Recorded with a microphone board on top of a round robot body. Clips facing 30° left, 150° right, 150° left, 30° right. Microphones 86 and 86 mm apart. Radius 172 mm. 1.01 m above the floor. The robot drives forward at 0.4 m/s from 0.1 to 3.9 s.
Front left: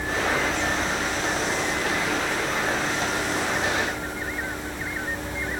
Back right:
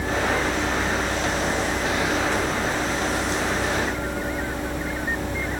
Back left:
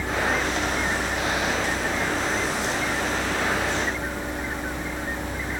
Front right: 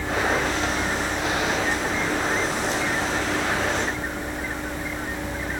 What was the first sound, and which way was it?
Only background noise.